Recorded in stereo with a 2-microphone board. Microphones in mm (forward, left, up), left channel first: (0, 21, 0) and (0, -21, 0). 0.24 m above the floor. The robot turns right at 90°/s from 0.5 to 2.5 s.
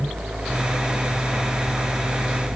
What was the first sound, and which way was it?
Only background noise.